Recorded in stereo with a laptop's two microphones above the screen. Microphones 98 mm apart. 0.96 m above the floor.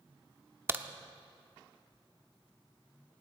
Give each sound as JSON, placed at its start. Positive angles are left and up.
{"t": 0.7, "sound": "a crack", "side_deg": -25, "distance_m": 0.9}